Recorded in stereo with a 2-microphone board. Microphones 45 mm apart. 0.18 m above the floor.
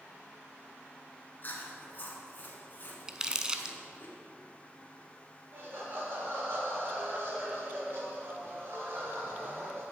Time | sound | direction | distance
1.4 | chewing | 45° left (ahead or behind) | 1.6 m
3.1 | crumpling | 15° right (ahead or behind) | 0.6 m
5.5 | laughter | 55° right (ahead or behind) | 3.5 m